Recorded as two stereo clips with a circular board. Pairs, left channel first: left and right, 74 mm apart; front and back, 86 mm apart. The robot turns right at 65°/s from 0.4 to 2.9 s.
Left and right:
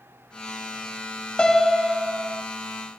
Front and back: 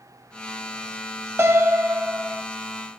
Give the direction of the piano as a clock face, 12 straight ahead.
7 o'clock.